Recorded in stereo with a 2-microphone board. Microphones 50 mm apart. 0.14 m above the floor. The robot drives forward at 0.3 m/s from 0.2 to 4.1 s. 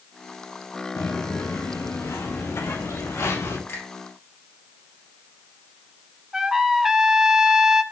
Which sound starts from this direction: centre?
A trumpet, at 6.3 s.